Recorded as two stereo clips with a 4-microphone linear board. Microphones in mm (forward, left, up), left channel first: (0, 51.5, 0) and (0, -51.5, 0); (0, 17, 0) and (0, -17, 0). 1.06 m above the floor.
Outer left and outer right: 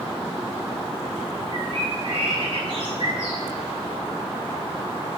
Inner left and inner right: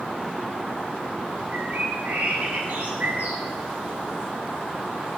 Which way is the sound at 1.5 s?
50° right (ahead or behind).